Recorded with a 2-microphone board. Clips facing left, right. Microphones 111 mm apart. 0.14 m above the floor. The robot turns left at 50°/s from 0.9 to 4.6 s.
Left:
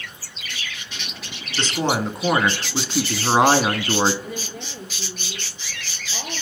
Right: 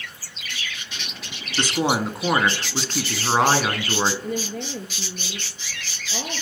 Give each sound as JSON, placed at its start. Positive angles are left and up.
{"t": 1.6, "sound": "a woman speaking", "side_deg": -15, "distance_m": 1.1}
{"t": 4.2, "sound": "a woman speaking", "side_deg": -50, "distance_m": 2.0}